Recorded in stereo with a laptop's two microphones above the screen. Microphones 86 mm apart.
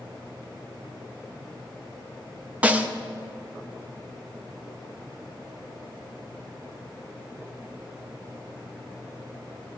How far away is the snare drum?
About 0.9 m.